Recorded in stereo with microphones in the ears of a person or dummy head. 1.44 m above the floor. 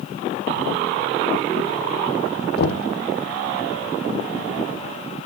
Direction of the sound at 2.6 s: 60° left (ahead or behind).